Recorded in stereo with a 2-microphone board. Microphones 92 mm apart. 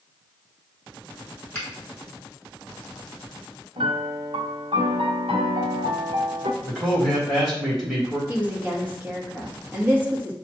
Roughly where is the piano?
Right.